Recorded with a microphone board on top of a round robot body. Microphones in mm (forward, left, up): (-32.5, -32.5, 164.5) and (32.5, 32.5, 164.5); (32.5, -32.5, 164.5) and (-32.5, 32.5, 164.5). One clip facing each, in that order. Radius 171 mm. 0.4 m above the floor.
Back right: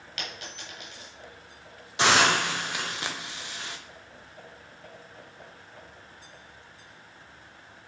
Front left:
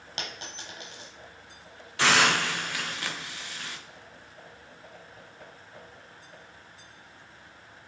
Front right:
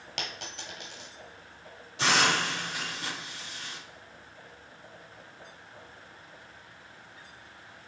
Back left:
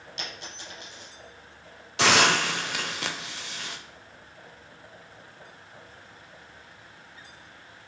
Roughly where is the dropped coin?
Ahead.